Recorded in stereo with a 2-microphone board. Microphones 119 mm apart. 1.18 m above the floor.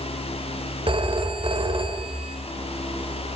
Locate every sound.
0.9 s a phone ringing: 50° right (ahead or behind), 3.5 m